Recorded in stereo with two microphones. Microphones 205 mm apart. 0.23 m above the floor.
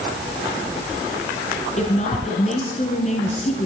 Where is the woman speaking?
35° left (ahead or behind), 2.5 m.